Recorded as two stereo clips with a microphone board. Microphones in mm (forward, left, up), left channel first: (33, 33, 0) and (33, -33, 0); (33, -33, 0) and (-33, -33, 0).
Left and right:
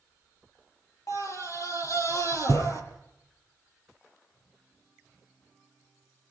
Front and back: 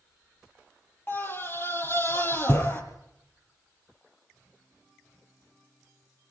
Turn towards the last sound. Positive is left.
turn(degrees=55)